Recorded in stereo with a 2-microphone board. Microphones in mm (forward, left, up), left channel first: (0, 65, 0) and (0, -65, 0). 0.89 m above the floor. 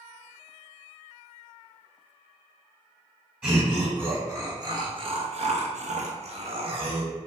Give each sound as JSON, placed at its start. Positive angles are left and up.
{"t": 3.4, "sound": "laughter", "side_deg": -10, "distance_m": 1.2}